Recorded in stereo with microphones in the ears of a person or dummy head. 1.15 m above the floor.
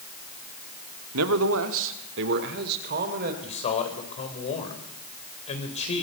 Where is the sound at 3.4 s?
35° left (ahead or behind), 4.5 m.